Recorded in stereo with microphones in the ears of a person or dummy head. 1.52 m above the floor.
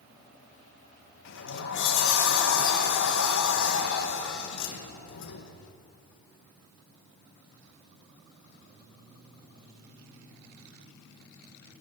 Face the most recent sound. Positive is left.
turn(degrees=70)  # may be behind; listen again after turning